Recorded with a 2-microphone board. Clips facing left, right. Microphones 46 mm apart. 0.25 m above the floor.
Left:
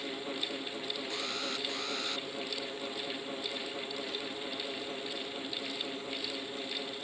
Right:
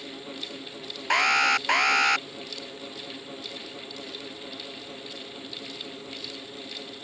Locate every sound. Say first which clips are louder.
1.1 s an alarm: right 20 dB; 75° right (ahead or behind)